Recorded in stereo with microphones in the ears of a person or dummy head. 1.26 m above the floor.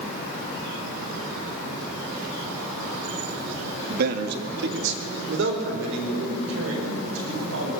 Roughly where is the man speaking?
Right.